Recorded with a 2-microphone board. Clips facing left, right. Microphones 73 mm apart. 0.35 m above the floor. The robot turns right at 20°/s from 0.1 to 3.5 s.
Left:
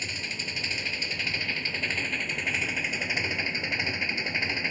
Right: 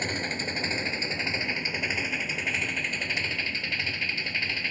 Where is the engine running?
50° right; by 4.7 s 20° left.